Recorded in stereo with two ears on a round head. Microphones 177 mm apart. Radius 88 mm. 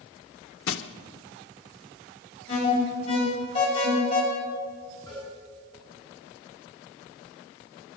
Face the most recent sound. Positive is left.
turn(degrees=20)  # may be behind; listen again after turning